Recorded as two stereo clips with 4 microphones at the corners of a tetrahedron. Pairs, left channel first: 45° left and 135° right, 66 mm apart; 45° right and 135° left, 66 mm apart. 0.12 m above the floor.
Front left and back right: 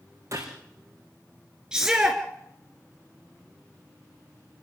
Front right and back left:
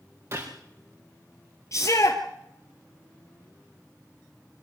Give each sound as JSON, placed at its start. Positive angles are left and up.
{"t": 0.3, "sound": "a gunshot", "azimuth_deg": 180, "distance_m": 5.0}
{"t": 1.7, "sound": "a shout", "azimuth_deg": -60, "distance_m": 1.8}